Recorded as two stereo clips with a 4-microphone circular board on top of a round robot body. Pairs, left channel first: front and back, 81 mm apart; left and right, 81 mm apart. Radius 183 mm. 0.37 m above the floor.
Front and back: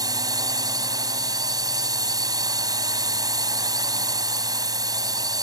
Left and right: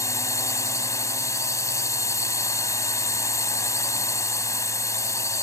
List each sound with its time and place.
0.0 s a drone: 140° left